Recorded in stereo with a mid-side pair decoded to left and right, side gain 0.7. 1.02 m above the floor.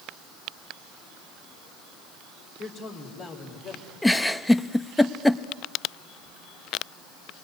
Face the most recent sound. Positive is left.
turn(degrees=5)